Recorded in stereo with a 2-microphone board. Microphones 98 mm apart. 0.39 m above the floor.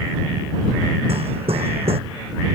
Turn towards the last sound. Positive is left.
turn(degrees=-80)